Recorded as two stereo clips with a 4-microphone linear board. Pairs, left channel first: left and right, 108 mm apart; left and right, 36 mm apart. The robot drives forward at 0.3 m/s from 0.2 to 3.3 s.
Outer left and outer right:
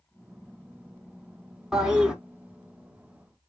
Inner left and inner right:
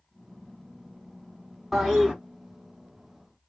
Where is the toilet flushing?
5° right (ahead or behind), 1.2 m.